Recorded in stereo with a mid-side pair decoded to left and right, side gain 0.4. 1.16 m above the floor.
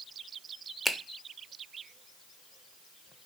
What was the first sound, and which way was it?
A finger snap, 5° left.